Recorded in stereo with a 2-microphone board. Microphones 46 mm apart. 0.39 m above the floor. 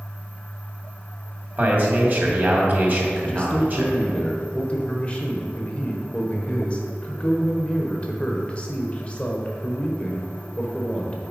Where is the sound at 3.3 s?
30° left (ahead or behind), 1.0 m.